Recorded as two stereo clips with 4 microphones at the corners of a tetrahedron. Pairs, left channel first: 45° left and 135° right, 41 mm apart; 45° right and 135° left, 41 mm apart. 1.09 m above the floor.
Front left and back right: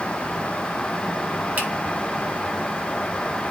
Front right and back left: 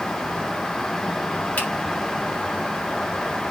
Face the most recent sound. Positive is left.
turn(degrees=-90)